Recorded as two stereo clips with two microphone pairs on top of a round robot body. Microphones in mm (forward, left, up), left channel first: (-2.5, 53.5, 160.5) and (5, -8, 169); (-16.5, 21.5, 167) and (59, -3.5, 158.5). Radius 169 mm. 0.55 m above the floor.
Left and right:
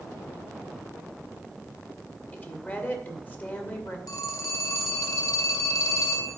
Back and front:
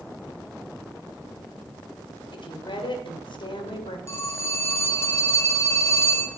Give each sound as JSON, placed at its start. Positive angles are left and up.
{"t": 2.3, "sound": "a woman speaking", "azimuth_deg": 155, "distance_m": 2.0}
{"t": 4.1, "sound": "a phone ringing", "azimuth_deg": 105, "distance_m": 2.0}